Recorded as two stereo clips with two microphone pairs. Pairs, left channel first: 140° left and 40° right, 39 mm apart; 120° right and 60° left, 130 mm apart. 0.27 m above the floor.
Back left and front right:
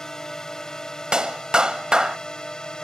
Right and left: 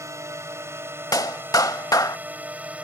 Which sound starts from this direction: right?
A clap, at 1.1 s.